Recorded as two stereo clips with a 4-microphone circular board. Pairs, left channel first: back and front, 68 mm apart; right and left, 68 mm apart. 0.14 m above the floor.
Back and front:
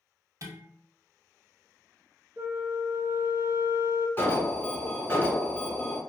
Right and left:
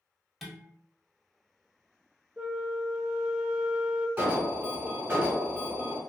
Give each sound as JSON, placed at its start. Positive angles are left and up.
{"t": 0.4, "sound": "dishes clattering", "azimuth_deg": 0, "distance_m": 1.3}
{"t": 2.4, "sound": "a flute", "azimuth_deg": 25, "distance_m": 0.5}
{"t": 4.2, "sound": "an alarm", "azimuth_deg": 135, "distance_m": 1.2}